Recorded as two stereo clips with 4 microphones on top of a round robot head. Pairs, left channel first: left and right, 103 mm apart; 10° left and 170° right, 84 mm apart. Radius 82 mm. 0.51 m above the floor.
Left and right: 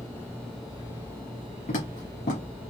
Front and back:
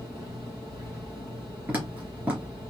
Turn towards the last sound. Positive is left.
turn(degrees=115)